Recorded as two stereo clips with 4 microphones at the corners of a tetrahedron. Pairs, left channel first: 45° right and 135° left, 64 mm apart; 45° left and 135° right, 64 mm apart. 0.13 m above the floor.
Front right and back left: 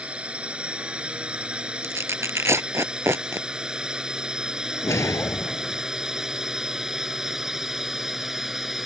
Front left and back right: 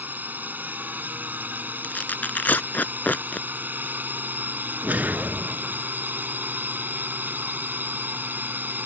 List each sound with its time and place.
0.0 s a drone: 170° right; by 8.9 s 145° right
1.8 s tearing paper: 105° left
4.8 s a whoosh: 75° right